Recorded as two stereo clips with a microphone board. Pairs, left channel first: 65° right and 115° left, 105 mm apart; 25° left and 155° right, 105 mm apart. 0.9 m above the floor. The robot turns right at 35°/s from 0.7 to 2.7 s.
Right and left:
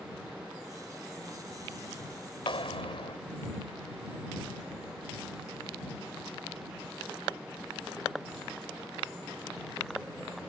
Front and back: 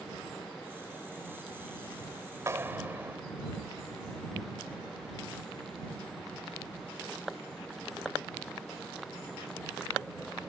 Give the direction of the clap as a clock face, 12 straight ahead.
3 o'clock.